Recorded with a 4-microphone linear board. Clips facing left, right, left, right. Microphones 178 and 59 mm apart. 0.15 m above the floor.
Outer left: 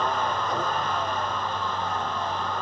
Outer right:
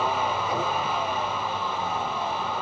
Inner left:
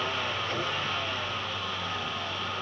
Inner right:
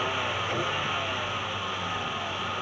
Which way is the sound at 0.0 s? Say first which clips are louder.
Outer right 1 dB, inner right 2 dB; 10° right (ahead or behind).